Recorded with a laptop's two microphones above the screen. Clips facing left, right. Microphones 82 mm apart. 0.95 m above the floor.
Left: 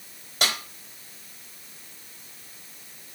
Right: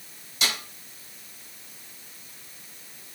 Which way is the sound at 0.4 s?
55° left (ahead or behind).